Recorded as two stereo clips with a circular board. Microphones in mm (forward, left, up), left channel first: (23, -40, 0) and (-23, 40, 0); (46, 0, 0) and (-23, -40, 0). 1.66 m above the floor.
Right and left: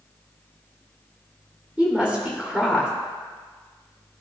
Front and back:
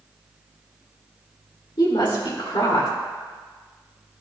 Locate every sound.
1.8 s a woman speaking: 40° left, 2 m